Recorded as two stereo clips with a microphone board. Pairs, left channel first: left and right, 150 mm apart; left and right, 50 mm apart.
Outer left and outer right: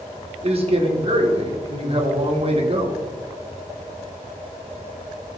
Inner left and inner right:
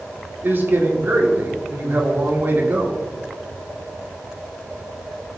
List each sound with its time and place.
0.4 s a man speaking: 40° right (ahead or behind), 1.8 m